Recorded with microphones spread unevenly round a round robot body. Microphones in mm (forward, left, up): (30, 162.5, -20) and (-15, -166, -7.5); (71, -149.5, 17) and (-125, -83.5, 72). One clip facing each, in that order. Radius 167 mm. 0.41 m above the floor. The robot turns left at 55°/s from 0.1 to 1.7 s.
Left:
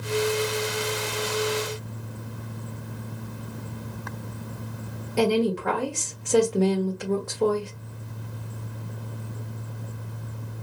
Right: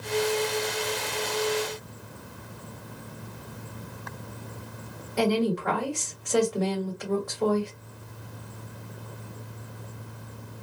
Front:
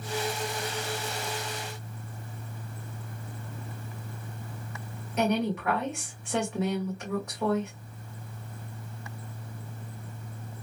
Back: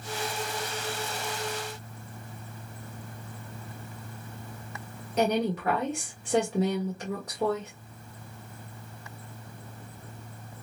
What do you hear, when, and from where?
5.2 s a woman speaking: 105° left, 1.4 m